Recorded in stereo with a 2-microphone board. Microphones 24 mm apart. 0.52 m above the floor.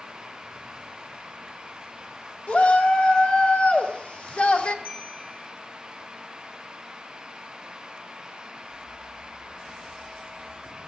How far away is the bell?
About 6.5 m.